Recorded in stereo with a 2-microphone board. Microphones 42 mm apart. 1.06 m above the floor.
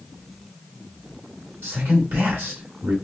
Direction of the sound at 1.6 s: 75° right (ahead or behind).